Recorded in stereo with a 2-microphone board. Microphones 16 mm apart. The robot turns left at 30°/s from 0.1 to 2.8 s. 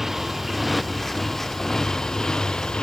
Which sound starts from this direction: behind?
A motorcycle, at 0.0 s.